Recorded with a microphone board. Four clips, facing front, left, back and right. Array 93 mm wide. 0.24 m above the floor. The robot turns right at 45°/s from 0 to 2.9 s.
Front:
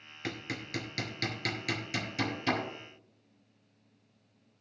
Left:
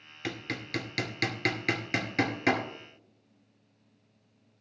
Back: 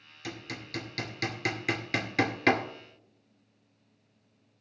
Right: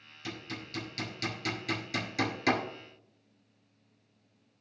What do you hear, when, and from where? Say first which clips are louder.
0.2 s hammering: left 5 dB, front 2 dB; 55° left, 2 m; by 2.6 s 160° left, 2 m